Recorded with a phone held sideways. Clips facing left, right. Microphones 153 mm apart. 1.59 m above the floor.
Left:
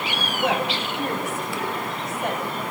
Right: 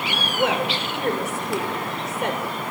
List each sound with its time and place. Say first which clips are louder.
0.3 s a woman speaking: right 1 dB; 90° right, 6.5 m; by 2.5 s 80° right, 6.5 m